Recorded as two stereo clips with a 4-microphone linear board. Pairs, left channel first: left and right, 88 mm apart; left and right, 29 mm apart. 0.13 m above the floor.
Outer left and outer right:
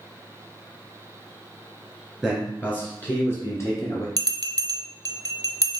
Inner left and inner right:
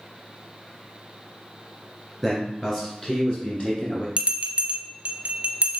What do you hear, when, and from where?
2.2 s a man speaking: 10° left (ahead or behind), 1.9 m; by 4.1 s 40° left (ahead or behind), 1.8 m
4.2 s a bell: 50° right (ahead or behind), 0.6 m